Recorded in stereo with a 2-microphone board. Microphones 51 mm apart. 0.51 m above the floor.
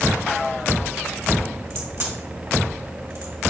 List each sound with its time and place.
1.7 s a crack: 60° right (ahead or behind), 1.6 m